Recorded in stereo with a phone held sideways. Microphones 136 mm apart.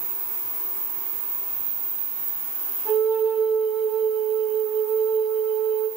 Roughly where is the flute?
Centre.